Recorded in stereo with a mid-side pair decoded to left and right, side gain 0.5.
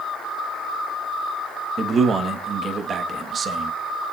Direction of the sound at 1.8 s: 40° right.